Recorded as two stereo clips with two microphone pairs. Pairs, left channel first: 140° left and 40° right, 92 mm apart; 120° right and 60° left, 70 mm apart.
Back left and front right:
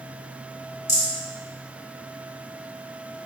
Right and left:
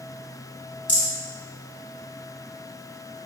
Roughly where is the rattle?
Behind.